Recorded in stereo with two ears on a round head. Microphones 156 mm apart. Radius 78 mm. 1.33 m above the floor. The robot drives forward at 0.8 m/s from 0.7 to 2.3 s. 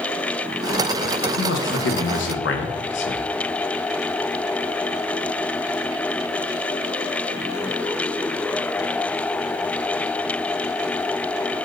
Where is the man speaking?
70° left (ahead or behind), 1.6 m; by 3.2 s 75° left (ahead or behind), 1.6 m.